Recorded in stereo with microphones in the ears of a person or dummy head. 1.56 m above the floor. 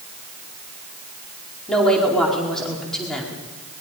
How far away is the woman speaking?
About 4.5 m.